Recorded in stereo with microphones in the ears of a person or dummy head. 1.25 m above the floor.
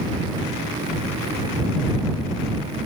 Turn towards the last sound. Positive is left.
No sound to turn to.